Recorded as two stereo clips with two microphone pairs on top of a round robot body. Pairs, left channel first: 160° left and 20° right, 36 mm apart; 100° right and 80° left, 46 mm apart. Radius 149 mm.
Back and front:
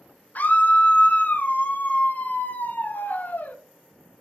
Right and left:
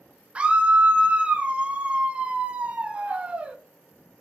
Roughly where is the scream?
Behind left.